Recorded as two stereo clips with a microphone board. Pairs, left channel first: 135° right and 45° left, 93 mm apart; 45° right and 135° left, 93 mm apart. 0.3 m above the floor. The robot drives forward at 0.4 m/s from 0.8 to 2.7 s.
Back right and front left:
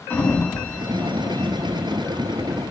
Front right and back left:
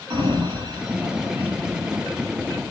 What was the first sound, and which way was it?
A sliding door, 155° left.